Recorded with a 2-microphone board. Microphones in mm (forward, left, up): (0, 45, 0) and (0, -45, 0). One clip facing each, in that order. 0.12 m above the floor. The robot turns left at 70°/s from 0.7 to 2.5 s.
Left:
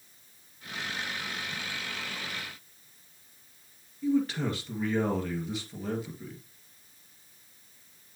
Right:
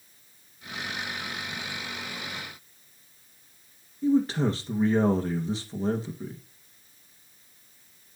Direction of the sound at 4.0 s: 30° right (ahead or behind).